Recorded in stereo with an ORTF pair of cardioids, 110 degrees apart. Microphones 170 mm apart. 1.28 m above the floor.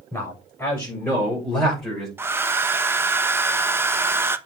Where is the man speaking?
10° left, 7 m; by 2.1 s straight ahead, 5.5 m.